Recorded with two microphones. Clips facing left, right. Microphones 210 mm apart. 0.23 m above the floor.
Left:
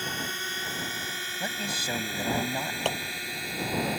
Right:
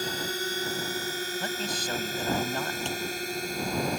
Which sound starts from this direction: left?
A clap, at 2.9 s.